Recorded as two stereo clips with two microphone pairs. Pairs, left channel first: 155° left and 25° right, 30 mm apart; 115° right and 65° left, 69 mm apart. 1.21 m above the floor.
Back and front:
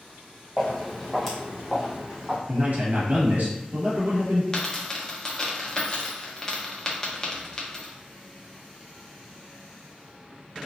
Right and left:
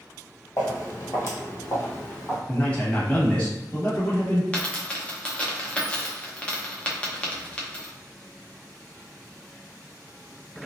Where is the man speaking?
45° right, 1.3 m.